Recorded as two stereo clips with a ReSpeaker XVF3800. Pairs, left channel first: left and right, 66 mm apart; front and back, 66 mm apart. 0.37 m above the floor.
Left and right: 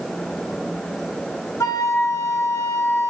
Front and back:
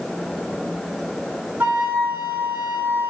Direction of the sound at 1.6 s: 120° left.